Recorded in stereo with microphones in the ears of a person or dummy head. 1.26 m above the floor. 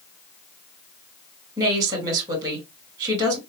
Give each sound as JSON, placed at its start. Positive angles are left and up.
{"t": 1.6, "sound": "a woman speaking", "side_deg": -15, "distance_m": 2.0}